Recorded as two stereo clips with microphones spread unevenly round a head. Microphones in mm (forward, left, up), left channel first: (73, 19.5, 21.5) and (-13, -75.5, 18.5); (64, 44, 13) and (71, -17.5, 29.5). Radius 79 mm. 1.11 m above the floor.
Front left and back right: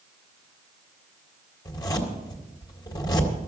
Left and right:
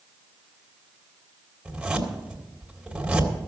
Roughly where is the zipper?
Ahead.